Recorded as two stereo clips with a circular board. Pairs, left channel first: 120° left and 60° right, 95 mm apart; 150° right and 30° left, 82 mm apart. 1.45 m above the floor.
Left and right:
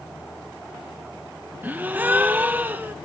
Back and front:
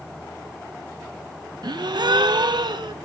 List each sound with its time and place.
1.6 s a gasp: 10° left, 0.9 m